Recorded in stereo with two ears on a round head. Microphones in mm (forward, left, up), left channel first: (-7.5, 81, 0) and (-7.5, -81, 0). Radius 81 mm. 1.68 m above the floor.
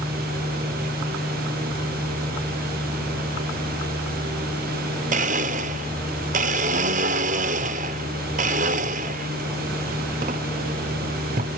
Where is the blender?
40° right (ahead or behind), 0.5 m.